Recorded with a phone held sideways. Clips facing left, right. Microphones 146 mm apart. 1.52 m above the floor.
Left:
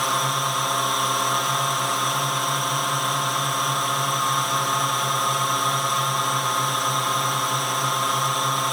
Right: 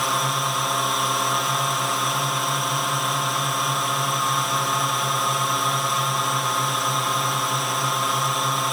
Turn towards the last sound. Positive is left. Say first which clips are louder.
# even
turn(degrees=0)  # may be behind; listen again after turning